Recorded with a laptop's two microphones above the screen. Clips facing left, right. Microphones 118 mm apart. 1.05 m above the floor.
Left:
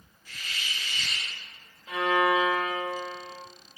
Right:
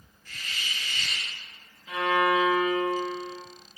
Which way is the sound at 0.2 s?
10° left (ahead or behind).